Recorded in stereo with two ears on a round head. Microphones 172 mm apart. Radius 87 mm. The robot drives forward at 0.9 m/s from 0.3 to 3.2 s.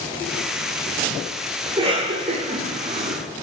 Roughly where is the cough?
Right.